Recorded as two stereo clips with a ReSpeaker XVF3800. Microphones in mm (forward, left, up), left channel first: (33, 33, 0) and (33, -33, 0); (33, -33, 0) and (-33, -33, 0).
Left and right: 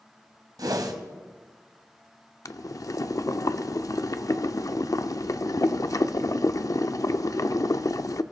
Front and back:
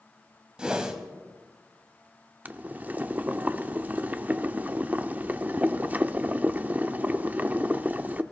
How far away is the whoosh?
About 1.5 m.